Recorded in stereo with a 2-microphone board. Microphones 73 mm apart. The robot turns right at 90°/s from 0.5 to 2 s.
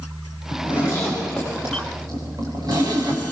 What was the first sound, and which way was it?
A zipper, 100° left.